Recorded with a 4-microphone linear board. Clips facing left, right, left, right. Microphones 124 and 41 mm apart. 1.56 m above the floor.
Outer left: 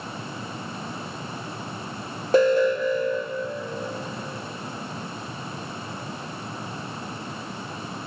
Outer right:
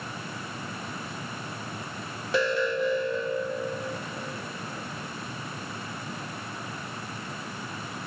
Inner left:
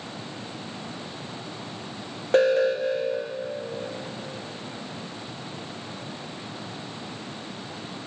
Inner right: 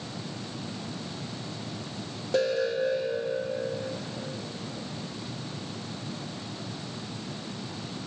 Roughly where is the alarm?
Left.